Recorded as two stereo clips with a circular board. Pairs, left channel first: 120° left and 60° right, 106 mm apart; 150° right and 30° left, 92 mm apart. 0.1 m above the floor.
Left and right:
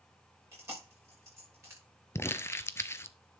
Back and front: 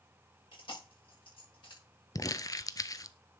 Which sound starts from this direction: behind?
Crumpling, at 2.1 s.